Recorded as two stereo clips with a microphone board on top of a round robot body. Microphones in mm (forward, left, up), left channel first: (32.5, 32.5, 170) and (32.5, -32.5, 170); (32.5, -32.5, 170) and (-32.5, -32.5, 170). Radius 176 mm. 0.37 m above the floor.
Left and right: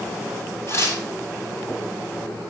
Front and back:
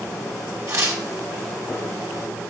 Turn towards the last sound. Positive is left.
turn(degrees=140)